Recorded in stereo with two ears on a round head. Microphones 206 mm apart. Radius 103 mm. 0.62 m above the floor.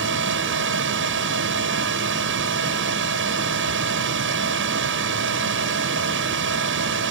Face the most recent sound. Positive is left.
turn(degrees=-60)  # may be behind; listen again after turning